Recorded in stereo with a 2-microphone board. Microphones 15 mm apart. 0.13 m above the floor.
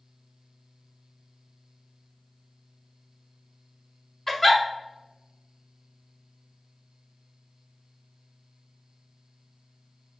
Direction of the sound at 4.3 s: 15° left (ahead or behind).